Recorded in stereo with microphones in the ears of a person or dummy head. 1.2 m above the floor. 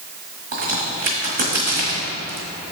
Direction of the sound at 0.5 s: 45° right (ahead or behind).